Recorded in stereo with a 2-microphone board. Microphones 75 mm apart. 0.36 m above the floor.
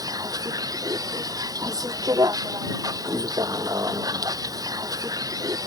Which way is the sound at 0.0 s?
55° right (ahead or behind).